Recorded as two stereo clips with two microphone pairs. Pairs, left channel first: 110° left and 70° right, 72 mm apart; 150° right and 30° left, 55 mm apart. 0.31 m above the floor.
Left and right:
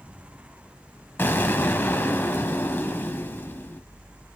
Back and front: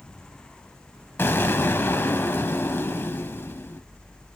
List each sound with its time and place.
1.2 s an explosion: 165° left, 1.3 m